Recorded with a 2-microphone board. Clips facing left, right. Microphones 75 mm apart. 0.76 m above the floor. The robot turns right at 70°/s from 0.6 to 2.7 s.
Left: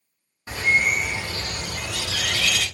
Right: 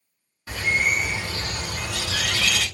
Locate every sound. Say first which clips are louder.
0.5 s a bird: left 2 dB; 155° left, 1.7 m; by 2.6 s 60° right, 1.7 m